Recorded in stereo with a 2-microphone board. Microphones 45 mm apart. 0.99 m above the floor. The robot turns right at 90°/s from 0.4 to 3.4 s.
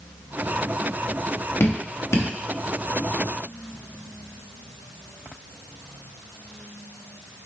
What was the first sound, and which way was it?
Dripping, 60° left (ahead or behind).